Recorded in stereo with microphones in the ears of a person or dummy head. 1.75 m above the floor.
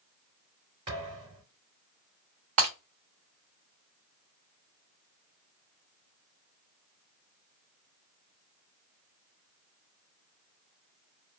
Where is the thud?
25° right (ahead or behind), 3 m.